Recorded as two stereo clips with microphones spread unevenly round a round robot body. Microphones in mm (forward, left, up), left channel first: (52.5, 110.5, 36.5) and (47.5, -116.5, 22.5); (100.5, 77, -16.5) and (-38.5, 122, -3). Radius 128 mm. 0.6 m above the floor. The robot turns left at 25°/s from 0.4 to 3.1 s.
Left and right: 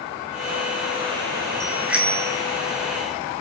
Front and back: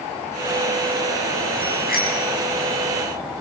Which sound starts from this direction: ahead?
A bicycle bell, at 1.6 s.